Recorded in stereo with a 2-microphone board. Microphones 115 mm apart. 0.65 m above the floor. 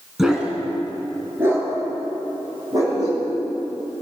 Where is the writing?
I don't hear writing.